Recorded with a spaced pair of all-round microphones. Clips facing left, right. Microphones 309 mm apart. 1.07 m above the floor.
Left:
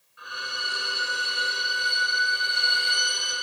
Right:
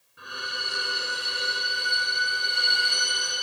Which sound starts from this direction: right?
A violin, at 0.2 s.